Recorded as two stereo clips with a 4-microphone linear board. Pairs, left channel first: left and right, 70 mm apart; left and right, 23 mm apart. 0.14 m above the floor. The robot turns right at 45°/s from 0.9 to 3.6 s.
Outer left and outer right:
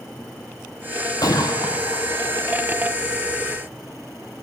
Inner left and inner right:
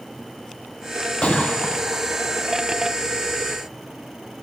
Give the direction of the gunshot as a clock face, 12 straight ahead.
10 o'clock.